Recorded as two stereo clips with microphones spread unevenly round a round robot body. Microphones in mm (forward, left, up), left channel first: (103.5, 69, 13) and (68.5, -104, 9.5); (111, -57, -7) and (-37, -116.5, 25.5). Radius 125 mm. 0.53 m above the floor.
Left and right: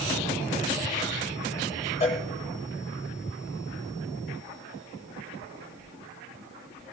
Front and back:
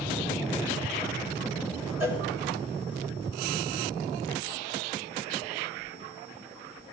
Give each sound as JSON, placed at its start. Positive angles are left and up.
{"t": 2.0, "sound": "a cowbell", "azimuth_deg": 155, "distance_m": 1.2}